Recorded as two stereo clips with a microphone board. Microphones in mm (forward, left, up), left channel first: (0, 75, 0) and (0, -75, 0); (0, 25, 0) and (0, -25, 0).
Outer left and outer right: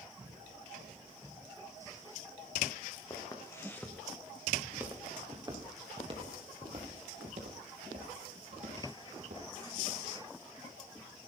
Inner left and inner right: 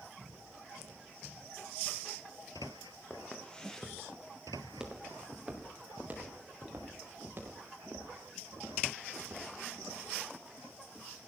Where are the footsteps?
30° left (ahead or behind), 3 m; by 10.0 s 65° right (ahead or behind), 8 m.